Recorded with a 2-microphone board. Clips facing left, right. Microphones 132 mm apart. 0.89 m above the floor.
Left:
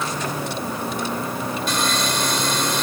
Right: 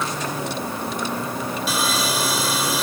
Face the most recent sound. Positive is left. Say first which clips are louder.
# even
turn(degrees=-5)  # may be behind; listen again after turning